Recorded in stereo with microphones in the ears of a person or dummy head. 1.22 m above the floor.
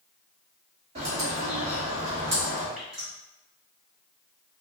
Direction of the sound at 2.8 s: Centre (ahead or behind).